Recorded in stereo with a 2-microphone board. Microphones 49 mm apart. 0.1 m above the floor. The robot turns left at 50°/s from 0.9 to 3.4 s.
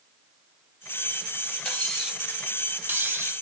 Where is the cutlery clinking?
15° left, 1.6 m; by 3.3 s 70° right, 1.6 m.